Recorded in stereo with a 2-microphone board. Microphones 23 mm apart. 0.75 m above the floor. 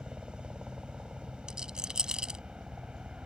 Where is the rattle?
35° right (ahead or behind).